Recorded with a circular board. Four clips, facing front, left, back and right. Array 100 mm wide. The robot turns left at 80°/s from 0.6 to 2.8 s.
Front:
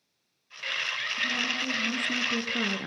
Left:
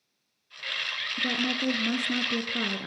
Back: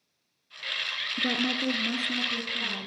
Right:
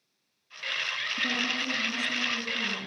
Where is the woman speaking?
165° left, 4.5 m; by 2.9 s 35° left, 4.5 m.